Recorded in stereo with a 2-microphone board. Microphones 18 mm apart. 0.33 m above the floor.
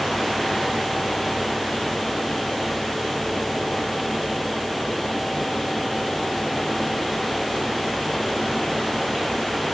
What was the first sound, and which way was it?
Only background noise.